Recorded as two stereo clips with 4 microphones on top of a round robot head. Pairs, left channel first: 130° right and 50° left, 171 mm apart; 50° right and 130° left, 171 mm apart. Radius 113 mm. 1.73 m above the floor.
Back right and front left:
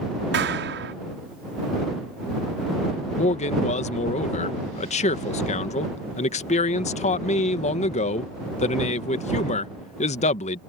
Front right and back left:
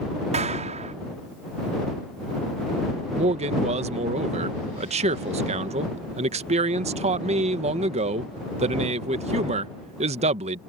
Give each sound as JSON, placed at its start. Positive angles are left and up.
{"t": 0.3, "sound": "a clap", "azimuth_deg": 75}
{"t": 3.2, "sound": "a man speaking", "azimuth_deg": 180}